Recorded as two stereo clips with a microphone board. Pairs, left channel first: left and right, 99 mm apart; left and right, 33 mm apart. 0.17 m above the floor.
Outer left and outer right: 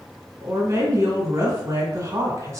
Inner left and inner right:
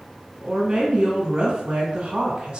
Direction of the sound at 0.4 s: 30° right (ahead or behind).